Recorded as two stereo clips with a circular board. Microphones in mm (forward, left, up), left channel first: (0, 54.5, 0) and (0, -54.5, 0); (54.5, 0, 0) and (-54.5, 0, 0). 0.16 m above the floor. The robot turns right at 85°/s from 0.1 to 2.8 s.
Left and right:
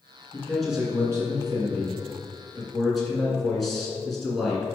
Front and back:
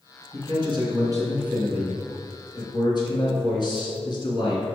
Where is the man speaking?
150° left, 2 m; by 4.7 s straight ahead, 2 m.